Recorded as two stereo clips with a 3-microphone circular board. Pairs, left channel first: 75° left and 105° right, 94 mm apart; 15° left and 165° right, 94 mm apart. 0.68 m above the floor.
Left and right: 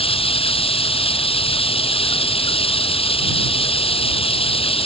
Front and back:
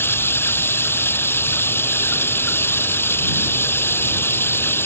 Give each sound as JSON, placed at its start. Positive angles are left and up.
{"t": 0.0, "sound": "running water", "azimuth_deg": 80}